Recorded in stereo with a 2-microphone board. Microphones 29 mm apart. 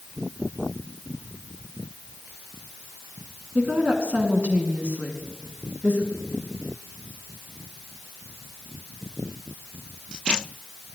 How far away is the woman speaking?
About 2.5 m.